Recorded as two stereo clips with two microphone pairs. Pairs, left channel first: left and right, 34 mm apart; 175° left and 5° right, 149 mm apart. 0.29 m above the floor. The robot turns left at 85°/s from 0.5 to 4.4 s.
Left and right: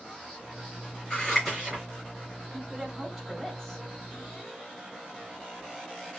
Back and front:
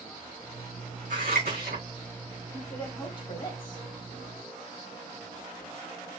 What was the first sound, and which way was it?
Scissors, 25° left.